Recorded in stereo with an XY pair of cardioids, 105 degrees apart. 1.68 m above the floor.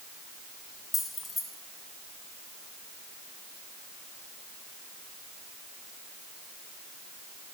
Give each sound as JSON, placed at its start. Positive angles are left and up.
{"t": 0.9, "sound": "keys jangling", "azimuth_deg": 20, "distance_m": 2.5}